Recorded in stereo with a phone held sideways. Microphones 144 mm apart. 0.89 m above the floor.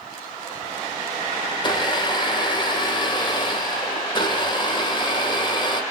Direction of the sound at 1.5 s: 30° left (ahead or behind).